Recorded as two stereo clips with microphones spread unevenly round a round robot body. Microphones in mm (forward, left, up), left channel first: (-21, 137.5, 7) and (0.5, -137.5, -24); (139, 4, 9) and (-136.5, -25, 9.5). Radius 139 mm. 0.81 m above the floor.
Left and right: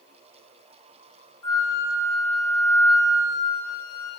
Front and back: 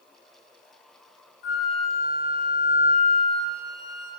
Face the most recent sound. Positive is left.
turn(degrees=80)